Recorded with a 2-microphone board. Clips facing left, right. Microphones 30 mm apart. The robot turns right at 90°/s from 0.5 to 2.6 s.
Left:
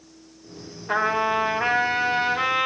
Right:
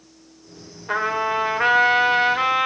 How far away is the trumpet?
About 2.5 m.